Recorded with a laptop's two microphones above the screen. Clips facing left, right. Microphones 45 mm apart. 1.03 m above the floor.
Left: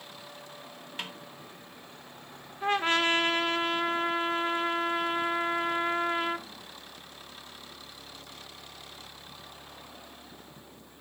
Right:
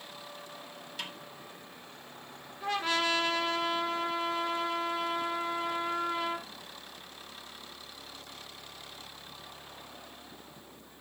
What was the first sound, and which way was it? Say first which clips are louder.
A snare drum: left 2 dB; 30° left (ahead or behind).